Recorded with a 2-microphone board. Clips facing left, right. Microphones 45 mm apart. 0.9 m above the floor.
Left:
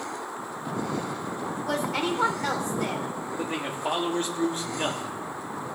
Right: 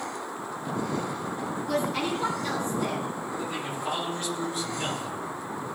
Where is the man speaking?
40° left (ahead or behind), 1.7 m.